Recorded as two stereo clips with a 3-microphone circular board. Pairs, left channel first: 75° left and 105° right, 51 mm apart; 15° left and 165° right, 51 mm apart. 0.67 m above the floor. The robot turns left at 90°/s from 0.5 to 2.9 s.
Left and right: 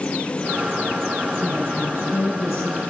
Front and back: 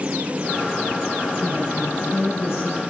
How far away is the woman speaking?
About 7.5 m.